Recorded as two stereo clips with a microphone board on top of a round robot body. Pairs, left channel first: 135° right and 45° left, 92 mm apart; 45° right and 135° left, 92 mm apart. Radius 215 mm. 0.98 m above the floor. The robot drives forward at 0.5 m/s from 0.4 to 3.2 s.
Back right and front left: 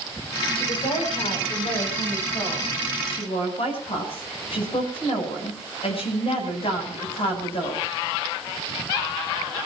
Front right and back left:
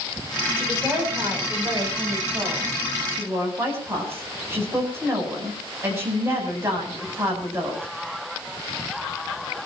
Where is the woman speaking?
155° right, 8.5 m; by 7.9 s 160° right, 9.5 m.